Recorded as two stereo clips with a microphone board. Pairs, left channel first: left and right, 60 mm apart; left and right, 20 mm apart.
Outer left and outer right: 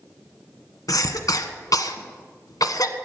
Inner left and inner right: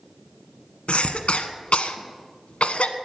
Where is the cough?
75° left (ahead or behind), 1.2 m.